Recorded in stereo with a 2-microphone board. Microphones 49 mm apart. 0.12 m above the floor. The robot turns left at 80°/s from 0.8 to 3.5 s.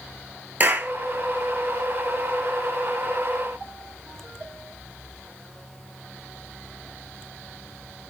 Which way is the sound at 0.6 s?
40° right (ahead or behind).